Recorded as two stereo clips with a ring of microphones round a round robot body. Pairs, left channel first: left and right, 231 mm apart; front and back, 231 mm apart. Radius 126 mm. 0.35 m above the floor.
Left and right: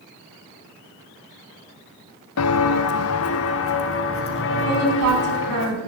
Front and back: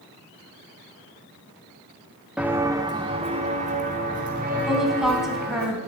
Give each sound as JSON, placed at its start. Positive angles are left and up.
{"t": 2.4, "sound": "footsteps", "azimuth_deg": 95, "distance_m": 0.8}
{"t": 4.7, "sound": "a woman speaking", "azimuth_deg": -90, "distance_m": 3.5}